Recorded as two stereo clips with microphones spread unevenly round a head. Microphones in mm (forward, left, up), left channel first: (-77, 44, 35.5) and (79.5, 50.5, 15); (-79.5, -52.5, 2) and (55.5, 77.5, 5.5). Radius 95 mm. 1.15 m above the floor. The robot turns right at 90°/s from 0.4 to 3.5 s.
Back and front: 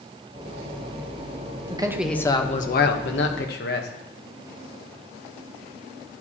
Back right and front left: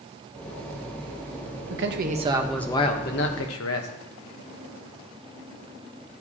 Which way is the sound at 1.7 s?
60° left.